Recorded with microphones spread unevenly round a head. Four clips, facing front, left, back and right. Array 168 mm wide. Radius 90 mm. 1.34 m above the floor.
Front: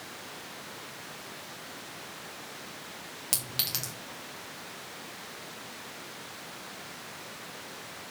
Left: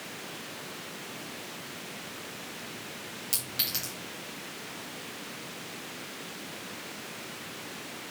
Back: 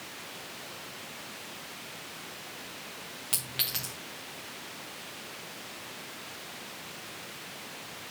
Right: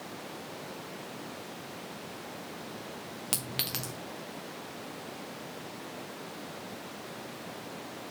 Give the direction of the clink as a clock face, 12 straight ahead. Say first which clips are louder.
Right 2 dB, front 1 dB; 2 o'clock.